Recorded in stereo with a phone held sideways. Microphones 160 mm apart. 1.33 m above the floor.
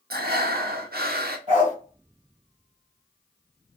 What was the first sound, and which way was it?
Breathing, 80° right.